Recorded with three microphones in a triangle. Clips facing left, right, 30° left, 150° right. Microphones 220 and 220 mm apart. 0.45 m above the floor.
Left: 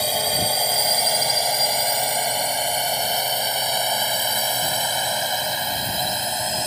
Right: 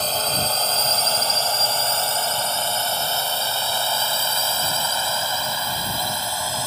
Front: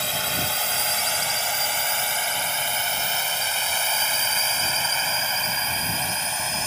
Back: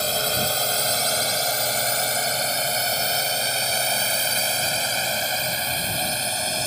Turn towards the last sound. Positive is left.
turn(degrees=160)